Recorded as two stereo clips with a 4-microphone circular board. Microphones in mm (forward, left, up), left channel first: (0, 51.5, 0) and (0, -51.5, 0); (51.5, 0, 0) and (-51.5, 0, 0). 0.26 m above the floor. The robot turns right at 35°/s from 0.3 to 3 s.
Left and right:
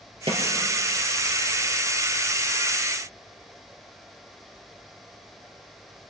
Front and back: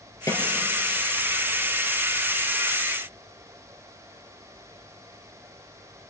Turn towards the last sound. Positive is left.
turn(degrees=35)